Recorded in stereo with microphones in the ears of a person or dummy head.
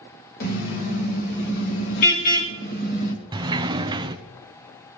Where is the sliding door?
25° right (ahead or behind), 0.7 m.